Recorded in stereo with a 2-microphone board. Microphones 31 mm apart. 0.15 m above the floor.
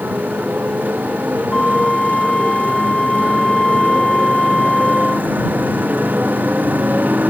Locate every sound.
0.0 s a motorcycle: 80° right
1.5 s a flute: 20° left (ahead or behind)